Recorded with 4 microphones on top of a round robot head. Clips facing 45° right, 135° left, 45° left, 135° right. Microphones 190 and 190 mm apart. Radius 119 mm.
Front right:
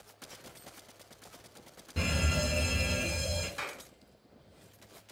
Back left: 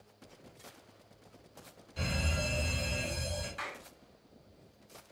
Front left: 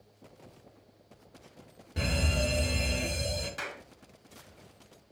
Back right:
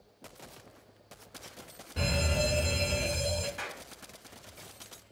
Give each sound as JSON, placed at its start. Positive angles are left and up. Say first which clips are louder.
{"t": 2.0, "sound": "a fire alarm", "louder": "front right 4 dB, back right 1 dB", "azimuth_deg": -30, "distance_m": 6.5}
{"t": 3.6, "sound": "a clap", "louder": "front right 2 dB, front left 1 dB", "azimuth_deg": -5, "distance_m": 5.5}